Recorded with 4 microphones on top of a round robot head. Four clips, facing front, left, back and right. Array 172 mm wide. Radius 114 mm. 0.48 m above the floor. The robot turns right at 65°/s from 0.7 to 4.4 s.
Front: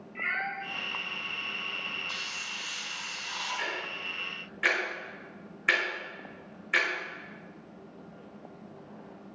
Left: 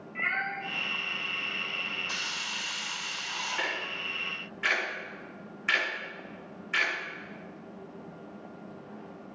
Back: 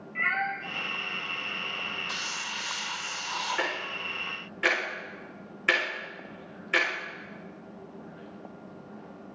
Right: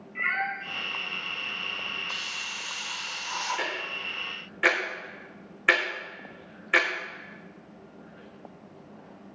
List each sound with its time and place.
0.1 s a cat meowing: 175° left, 5.5 m
2.1 s a hiss: 140° left, 1.9 m; by 3.7 s 115° right, 1.9 m
3.6 s ticking: 165° right, 5.5 m; by 6.9 s 110° right, 5.5 m